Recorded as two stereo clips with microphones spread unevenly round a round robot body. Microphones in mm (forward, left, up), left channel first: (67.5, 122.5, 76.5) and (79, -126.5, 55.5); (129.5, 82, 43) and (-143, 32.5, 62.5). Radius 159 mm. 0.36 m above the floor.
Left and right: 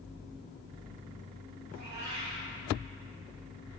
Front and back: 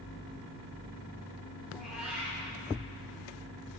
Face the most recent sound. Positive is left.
turn(degrees=-80)